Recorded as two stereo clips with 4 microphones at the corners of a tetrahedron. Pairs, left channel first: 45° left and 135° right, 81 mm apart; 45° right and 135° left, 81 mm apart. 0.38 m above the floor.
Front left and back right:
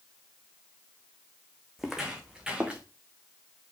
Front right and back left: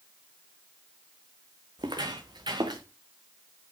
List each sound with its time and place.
1.8 s footsteps: 140° left, 1.9 m; by 2.8 s 150° left, 3 m